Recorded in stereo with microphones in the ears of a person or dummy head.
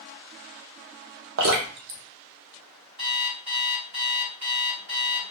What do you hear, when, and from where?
1.4 s dripping: 60° right (ahead or behind), 0.6 m
3.0 s an alarm clock: 35° right (ahead or behind), 1.5 m